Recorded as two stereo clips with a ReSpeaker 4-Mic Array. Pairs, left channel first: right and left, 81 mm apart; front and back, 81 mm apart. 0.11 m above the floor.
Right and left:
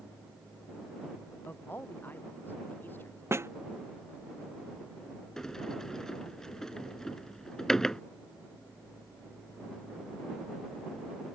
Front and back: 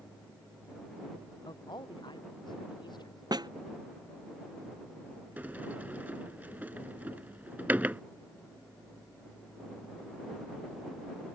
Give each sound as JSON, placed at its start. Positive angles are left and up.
{"t": 1.4, "sound": "a man speaking", "azimuth_deg": -25}
{"t": 3.3, "sound": "a snare drum", "azimuth_deg": 145}
{"t": 5.4, "sound": "a sliding door", "azimuth_deg": -160}